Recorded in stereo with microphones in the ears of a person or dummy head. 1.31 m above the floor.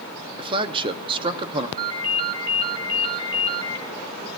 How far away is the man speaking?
About 0.6 m.